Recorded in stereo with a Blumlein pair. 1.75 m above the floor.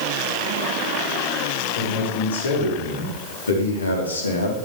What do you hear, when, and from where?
1.8 s a man speaking: 70° left, 7.5 m; by 4.6 s 80° left, 3 m